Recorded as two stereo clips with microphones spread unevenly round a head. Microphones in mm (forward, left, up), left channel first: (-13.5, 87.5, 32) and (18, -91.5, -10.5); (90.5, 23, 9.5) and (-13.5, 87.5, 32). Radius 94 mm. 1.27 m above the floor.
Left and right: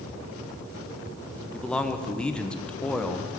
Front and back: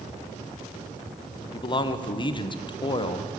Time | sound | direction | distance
1.5 | a man speaking | 10° left | 0.7 m